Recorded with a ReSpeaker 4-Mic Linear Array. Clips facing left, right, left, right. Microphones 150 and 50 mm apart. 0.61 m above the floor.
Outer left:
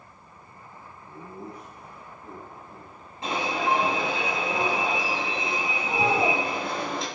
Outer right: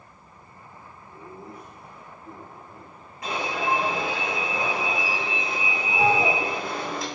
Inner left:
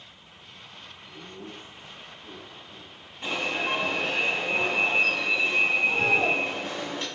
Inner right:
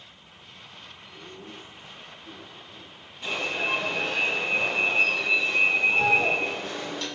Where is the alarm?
30° left (ahead or behind), 6.5 m.